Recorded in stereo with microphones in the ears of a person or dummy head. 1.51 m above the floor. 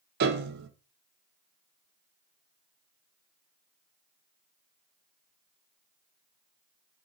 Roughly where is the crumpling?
I don't hear crumpling.